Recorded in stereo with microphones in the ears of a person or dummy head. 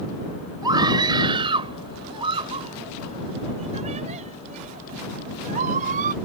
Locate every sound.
0.6 s a scream: 20° right (ahead or behind); by 6.2 s 40° right (ahead or behind)